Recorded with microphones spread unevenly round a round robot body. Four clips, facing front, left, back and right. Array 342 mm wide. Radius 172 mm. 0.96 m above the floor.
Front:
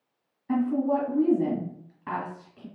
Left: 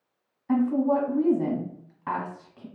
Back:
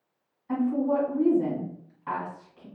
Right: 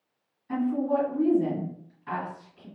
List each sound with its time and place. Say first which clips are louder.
0.5 s a woman speaking: left 3 dB, front 1 dB; 50° left, 1.6 m